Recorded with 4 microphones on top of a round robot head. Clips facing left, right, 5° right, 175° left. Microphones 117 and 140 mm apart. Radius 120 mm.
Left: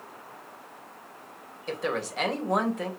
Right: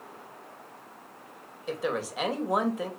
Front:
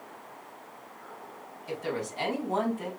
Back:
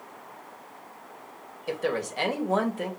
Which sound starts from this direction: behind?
A woman speaking, at 1.7 s.